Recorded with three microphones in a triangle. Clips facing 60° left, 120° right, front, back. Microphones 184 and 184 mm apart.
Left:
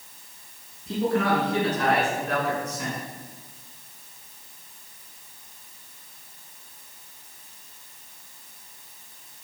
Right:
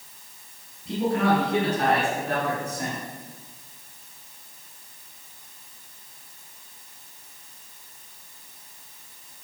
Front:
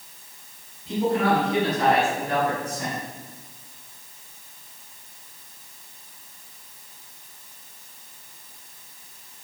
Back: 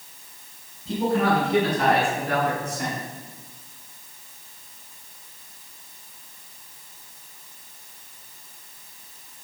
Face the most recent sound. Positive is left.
turn(degrees=-160)